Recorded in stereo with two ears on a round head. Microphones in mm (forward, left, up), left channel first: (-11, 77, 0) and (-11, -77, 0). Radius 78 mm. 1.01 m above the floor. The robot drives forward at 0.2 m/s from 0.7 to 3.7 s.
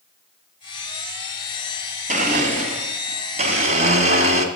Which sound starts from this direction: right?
A blender, at 2.1 s.